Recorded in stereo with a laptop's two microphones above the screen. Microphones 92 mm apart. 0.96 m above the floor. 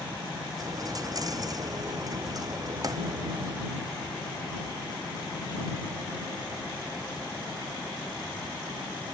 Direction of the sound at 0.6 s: 40° right (ahead or behind).